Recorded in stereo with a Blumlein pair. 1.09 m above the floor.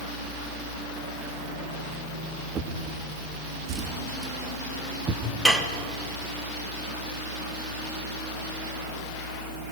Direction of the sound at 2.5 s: 20° right.